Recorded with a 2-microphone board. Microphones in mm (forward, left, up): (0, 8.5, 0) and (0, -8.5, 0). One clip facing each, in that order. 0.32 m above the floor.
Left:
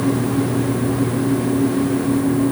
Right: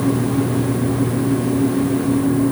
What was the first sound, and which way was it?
Only background noise.